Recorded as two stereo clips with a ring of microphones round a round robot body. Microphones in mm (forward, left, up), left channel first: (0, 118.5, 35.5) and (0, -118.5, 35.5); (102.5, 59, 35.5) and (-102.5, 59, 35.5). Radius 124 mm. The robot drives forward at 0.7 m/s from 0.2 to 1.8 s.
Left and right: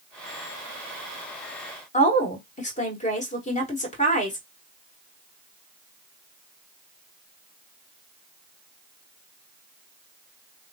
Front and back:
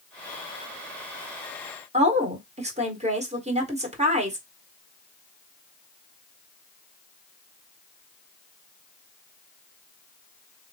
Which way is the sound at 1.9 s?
135° left.